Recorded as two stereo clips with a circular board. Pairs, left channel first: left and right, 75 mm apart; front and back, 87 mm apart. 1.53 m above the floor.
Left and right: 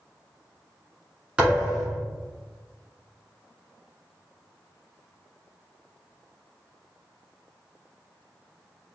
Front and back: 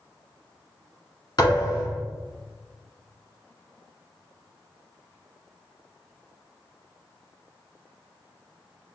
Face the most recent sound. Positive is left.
turn(degrees=-20)